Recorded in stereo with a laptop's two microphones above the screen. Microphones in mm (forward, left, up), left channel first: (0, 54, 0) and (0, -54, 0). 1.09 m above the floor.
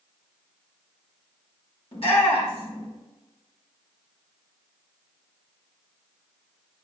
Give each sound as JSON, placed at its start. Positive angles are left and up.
{"t": 1.9, "sound": "a shout", "side_deg": 60, "distance_m": 3.0}